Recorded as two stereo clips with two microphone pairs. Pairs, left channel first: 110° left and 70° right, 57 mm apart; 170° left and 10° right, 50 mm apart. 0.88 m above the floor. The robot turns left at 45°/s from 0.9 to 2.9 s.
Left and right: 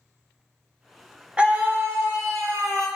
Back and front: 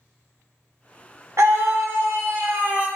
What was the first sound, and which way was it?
A scream, straight ahead.